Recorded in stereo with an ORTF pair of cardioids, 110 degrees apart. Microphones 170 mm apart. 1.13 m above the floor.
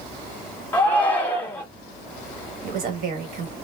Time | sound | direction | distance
0.7 | a shout | 10° left | 1.1 m
2.6 | a woman speaking | 55° right | 1.4 m